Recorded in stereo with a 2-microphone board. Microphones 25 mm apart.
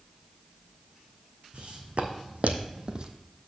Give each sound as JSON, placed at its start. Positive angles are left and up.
{"t": 1.5, "sound": "footsteps", "side_deg": -45, "distance_m": 1.6}